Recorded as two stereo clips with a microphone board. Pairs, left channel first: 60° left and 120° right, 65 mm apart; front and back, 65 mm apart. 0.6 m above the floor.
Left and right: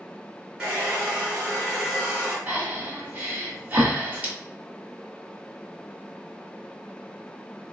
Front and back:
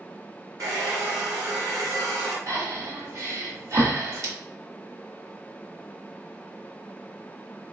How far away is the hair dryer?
About 2 m.